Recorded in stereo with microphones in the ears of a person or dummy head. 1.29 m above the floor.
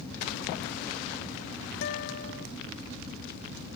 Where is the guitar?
60° left (ahead or behind).